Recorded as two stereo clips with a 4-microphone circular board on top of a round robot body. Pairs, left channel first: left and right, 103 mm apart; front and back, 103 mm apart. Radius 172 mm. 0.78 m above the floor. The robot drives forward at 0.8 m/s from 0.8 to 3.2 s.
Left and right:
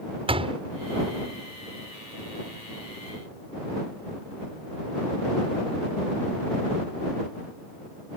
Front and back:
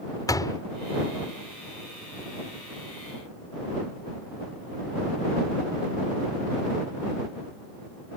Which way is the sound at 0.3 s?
55° right.